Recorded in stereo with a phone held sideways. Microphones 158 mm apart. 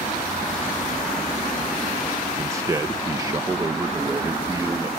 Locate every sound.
2.4 s a man speaking: 20° right (ahead or behind); by 4.9 s 25° right (ahead or behind)